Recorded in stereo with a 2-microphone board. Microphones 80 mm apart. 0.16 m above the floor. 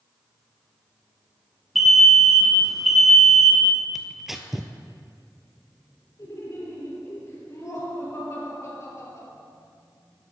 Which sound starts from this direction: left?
Laughter, at 6.2 s.